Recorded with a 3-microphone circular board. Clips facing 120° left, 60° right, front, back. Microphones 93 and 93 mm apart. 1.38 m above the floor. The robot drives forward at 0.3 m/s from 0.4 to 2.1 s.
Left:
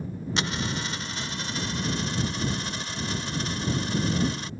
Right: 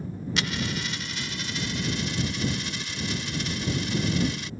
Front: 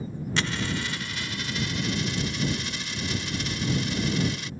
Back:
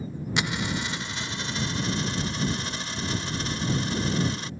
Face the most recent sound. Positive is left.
turn(degrees=145)